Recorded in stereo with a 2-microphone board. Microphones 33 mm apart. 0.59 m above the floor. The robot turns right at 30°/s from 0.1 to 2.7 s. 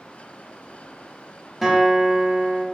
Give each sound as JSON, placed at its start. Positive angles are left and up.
{"t": 1.6, "sound": "a guitar", "azimuth_deg": 180, "distance_m": 1.0}